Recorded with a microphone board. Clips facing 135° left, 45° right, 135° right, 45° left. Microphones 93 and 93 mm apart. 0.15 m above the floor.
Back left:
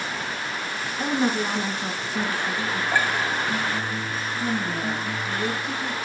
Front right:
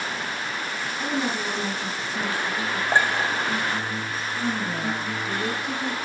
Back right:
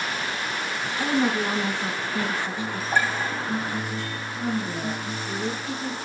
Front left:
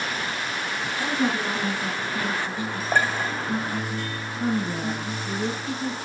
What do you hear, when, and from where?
1.0 s a woman speaking: 165° left, 1.8 m
2.9 s a clink: 15° left, 5.5 m
4.4 s a woman speaking: 45° left, 1.3 m